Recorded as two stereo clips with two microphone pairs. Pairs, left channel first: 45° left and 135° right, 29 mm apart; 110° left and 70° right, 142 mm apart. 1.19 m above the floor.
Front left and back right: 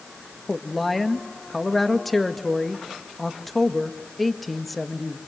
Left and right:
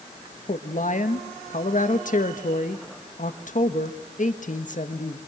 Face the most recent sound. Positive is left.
turn(degrees=130)